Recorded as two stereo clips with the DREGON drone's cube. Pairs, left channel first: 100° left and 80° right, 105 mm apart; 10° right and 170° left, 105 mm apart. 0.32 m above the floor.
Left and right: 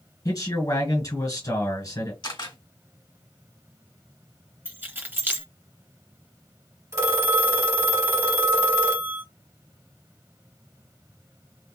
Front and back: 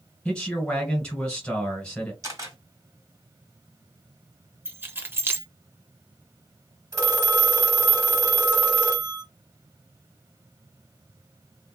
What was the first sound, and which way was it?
A man speaking, 65° left.